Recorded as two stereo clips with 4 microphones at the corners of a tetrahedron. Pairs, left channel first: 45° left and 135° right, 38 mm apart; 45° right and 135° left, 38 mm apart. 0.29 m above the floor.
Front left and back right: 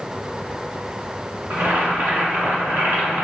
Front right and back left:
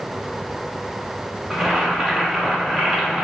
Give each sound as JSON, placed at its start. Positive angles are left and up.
{"t": 1.5, "sound": "boiling", "azimuth_deg": -140, "distance_m": 1.5}